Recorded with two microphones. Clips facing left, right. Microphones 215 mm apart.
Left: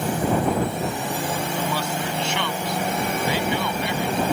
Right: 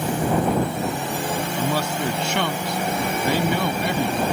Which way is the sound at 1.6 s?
50° right (ahead or behind).